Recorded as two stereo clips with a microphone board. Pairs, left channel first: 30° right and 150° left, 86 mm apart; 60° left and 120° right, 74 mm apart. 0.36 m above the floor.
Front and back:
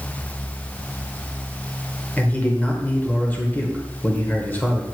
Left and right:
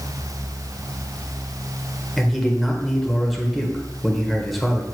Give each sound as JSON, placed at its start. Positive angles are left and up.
{"t": 2.2, "sound": "a man speaking", "azimuth_deg": -30, "distance_m": 1.3}